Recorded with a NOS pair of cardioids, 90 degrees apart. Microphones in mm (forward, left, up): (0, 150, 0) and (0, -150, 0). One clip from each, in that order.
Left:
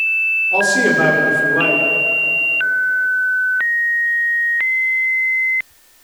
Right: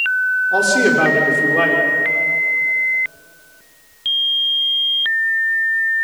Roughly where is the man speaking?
Ahead right.